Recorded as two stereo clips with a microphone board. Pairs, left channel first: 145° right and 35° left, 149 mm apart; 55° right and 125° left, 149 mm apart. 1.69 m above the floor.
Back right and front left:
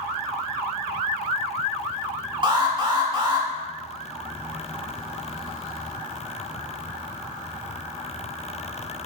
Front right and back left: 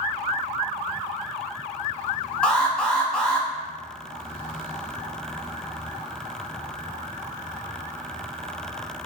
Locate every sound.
2.4 s an alarm: 25° left, 0.6 m